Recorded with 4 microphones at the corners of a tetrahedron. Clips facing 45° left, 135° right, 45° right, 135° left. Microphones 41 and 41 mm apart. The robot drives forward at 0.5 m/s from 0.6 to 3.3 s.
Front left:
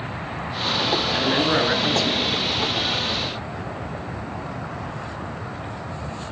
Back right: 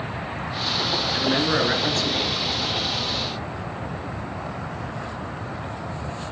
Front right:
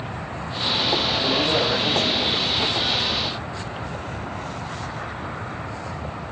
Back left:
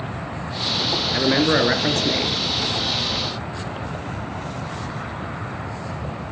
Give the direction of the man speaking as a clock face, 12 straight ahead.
8 o'clock.